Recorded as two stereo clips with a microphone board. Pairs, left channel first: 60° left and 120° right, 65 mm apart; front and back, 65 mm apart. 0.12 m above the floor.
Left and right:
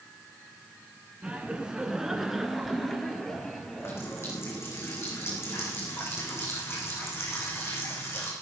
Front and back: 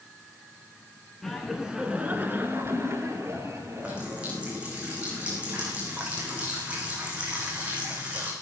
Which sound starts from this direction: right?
Laughter, at 1.2 s.